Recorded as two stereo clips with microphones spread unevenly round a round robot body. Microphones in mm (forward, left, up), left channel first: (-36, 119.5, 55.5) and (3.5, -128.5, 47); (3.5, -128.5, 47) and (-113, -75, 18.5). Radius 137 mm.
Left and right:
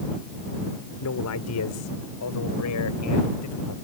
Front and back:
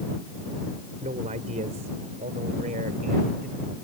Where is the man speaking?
115° left; by 3.8 s 110° left.